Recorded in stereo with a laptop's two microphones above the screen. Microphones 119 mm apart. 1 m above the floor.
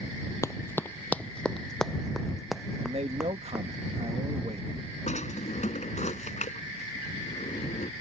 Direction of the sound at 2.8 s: 60° right (ahead or behind).